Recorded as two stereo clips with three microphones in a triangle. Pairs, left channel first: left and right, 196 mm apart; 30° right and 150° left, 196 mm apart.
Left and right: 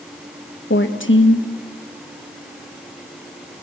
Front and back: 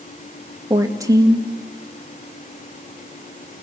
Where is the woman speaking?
75° left, 1.8 m.